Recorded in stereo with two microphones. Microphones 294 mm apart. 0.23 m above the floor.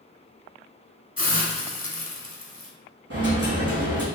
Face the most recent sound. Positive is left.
turn(degrees=-55)  # may be behind; listen again after turning